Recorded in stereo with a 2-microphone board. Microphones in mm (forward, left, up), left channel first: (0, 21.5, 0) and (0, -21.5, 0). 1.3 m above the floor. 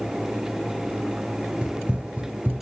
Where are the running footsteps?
20° right (ahead or behind), 1.4 m; by 2.6 s 30° right (ahead or behind), 1.4 m.